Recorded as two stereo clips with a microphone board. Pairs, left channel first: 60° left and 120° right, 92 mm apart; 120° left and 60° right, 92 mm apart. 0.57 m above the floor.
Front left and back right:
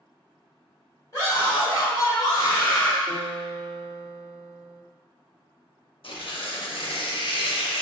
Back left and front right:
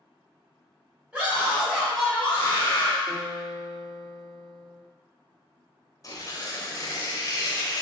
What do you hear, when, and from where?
1.1 s a scream: 15° left, 2.0 m; by 3.0 s 115° left, 1.3 m
3.1 s a guitar: 15° right, 1.6 m
6.0 s tearing paper: 70° left, 0.5 m